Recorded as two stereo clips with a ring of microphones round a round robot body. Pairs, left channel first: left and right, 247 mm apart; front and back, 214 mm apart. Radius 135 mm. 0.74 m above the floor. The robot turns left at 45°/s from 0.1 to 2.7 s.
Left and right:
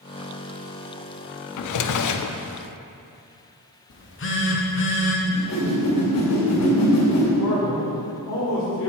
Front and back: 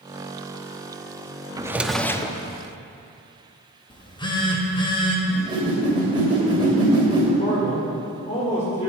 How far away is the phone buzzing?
About 1.4 m.